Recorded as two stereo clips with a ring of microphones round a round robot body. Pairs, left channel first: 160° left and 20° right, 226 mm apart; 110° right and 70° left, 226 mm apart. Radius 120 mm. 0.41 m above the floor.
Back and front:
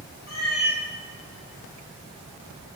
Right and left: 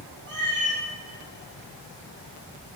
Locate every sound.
0.3 s a cat meowing: 110° left, 4 m